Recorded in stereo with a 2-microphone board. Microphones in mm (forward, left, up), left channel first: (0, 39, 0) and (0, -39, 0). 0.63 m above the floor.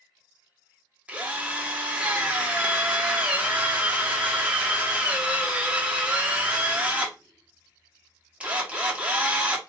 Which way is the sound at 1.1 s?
15° right (ahead or behind).